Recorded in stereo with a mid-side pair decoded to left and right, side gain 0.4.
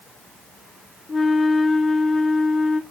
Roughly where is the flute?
Ahead left.